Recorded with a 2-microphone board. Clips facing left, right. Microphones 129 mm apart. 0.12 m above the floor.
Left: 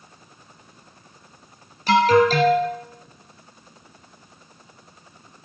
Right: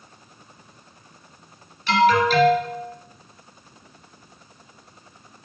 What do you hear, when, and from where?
1.9 s an alarm: 40° left (ahead or behind), 2.5 m